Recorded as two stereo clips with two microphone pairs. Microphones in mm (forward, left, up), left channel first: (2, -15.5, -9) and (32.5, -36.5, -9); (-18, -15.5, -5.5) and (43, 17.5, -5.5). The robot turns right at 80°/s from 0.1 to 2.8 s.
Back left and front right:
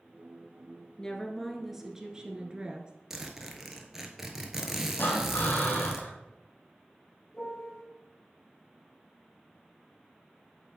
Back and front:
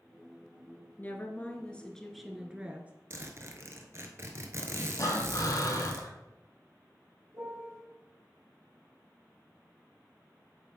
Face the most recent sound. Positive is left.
turn(degrees=75)